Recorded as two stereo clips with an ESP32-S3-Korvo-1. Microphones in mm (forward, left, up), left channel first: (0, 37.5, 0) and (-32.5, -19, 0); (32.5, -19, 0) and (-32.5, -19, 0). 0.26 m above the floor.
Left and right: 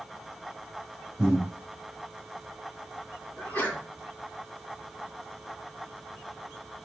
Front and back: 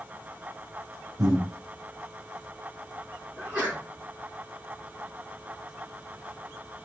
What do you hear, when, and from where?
1.2 s breathing: 160° left, 3 m
3.4 s a sneeze: 120° left, 2.5 m